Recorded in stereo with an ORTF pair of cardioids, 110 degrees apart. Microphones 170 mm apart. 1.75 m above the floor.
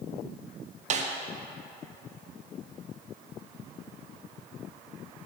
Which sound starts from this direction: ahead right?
A snare drum, at 0.9 s.